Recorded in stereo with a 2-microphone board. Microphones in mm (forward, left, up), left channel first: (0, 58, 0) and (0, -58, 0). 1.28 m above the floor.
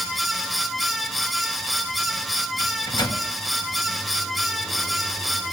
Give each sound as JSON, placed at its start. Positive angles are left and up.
{"t": 2.6, "sound": "a microwave", "side_deg": 40, "distance_m": 1.7}